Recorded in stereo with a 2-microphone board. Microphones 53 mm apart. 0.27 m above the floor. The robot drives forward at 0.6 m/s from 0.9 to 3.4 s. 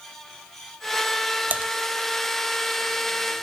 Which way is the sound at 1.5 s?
30° right (ahead or behind).